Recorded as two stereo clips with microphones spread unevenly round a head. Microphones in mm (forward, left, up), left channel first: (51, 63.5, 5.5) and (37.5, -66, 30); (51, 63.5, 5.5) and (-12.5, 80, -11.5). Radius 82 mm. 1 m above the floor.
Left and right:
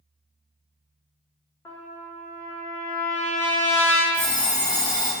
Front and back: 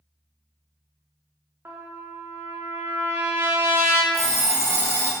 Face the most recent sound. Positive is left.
turn(degrees=120)